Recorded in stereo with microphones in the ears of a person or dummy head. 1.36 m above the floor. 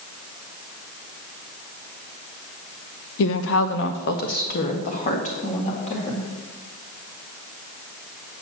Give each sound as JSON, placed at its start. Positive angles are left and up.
{"t": 3.2, "sound": "a woman speaking", "side_deg": 70, "distance_m": 0.7}